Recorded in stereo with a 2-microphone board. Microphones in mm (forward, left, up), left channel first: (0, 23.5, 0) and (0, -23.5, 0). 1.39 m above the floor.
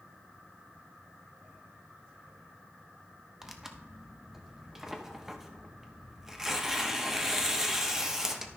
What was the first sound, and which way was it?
Tearing paper, 10° right (ahead or behind).